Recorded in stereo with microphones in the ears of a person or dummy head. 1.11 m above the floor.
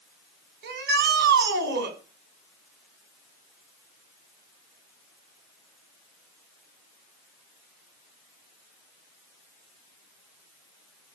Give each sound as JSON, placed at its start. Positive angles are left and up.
{"t": 0.6, "sound": "a shout", "side_deg": -65, "distance_m": 5.5}